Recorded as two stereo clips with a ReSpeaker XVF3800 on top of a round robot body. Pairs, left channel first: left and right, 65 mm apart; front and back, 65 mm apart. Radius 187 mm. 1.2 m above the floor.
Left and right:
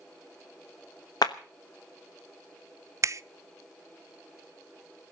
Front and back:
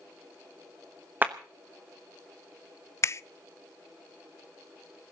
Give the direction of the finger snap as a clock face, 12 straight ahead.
2 o'clock.